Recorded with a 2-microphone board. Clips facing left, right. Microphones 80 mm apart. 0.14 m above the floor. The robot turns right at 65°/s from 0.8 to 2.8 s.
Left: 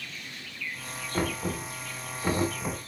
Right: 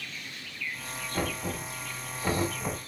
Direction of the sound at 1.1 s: 30° left (ahead or behind).